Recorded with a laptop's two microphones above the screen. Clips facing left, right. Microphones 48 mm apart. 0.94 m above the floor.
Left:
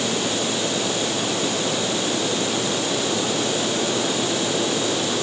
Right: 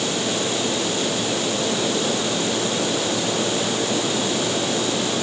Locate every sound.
Only background noise.